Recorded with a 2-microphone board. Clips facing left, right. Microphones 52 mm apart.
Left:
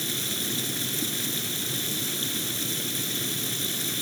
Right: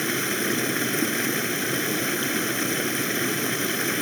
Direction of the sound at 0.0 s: 50° right (ahead or behind).